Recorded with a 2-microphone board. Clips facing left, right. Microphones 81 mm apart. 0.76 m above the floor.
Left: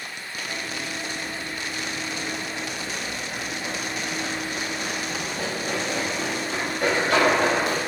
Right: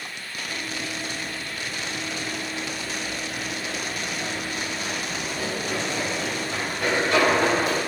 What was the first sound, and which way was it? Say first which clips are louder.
Running footsteps: even; 40° left (ahead or behind).